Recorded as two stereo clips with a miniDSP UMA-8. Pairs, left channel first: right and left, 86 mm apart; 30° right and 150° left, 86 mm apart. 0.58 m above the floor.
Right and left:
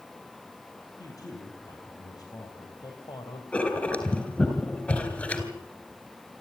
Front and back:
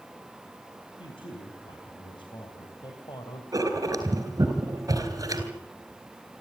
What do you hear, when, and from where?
1.0 s a man speaking: 45° right, 5 m; by 3.4 s 65° right, 2.5 m
3.5 s writing: 165° right, 3.5 m